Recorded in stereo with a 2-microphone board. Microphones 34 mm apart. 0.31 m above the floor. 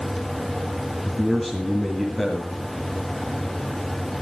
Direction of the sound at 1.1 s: 5° left (ahead or behind).